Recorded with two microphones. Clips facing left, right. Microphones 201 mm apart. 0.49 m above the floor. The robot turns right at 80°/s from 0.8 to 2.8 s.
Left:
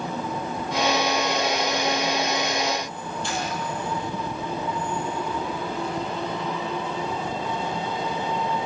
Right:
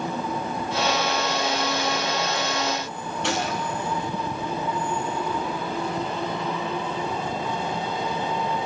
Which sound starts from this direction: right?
A gunshot, at 3.2 s.